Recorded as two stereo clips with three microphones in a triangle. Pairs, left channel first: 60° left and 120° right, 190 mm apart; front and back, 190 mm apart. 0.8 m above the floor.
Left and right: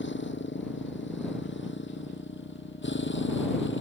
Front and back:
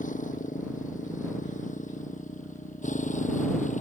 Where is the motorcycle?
45° left; by 3.8 s 50° left.